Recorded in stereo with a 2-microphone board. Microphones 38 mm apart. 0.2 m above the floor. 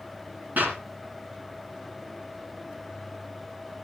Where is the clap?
55° right (ahead or behind), 2 m.